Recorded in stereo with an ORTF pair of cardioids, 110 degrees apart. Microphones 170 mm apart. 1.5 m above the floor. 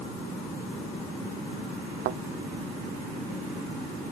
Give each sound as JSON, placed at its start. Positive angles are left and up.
{"t": 2.0, "sound": "a thud", "azimuth_deg": -70}